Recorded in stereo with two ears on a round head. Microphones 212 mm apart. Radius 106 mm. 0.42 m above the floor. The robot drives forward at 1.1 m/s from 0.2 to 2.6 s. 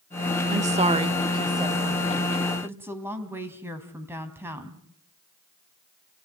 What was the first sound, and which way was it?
A woman speaking, 30° right (ahead or behind).